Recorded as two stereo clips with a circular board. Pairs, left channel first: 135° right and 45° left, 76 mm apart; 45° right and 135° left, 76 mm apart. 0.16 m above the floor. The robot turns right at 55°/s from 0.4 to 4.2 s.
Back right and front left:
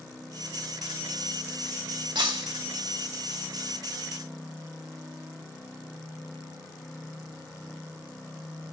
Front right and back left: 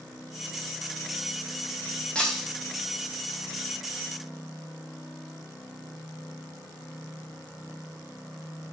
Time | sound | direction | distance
2.1 | breaking glass | 35° left | 2 m